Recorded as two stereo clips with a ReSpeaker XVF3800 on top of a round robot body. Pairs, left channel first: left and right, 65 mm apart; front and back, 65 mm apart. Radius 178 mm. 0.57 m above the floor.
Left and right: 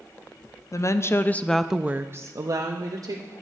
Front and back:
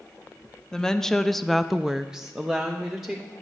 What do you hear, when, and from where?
0.7 s a woman speaking: 80° left, 0.9 m; by 3.3 s 100° right, 1.3 m